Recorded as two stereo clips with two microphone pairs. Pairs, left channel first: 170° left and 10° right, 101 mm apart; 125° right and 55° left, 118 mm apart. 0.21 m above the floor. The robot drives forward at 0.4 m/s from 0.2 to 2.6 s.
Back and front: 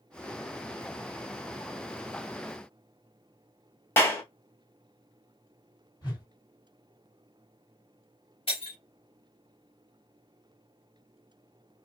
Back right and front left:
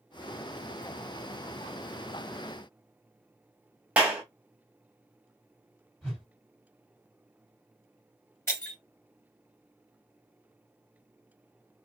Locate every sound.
4.0 s a clap: 125° left, 1.2 m
6.0 s a whoosh: 160° left, 2 m
8.5 s breaking glass: 165° left, 1.9 m